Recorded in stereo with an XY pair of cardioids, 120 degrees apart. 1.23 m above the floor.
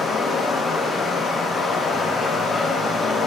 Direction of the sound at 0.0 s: 35° left.